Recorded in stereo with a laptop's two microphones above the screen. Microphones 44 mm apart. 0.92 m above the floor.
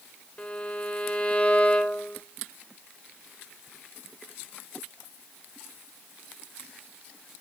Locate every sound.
0.4 s a violin: 25° left (ahead or behind), 0.8 m